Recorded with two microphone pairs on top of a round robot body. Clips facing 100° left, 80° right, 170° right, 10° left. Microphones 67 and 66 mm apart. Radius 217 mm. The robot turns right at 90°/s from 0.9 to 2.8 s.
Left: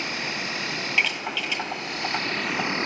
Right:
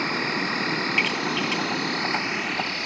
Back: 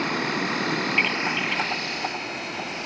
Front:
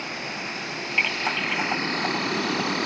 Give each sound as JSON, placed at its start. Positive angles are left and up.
{"t": 0.0, "sound": "an insect", "azimuth_deg": -135}